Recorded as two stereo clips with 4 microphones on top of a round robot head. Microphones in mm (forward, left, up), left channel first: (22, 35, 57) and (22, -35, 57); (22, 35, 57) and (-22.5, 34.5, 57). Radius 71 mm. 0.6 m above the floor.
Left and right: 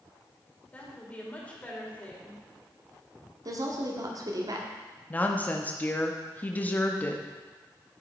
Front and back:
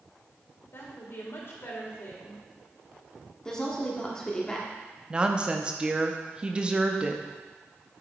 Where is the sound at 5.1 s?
135° left, 0.8 m.